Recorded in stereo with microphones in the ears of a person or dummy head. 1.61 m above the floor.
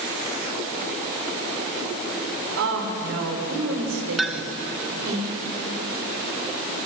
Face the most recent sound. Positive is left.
turn(degrees=0)  # may be behind; listen again after turning